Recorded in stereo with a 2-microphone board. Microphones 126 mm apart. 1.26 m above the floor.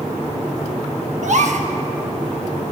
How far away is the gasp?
About 0.8 m.